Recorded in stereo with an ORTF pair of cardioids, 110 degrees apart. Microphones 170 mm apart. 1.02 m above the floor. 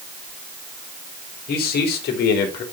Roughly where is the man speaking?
Ahead left.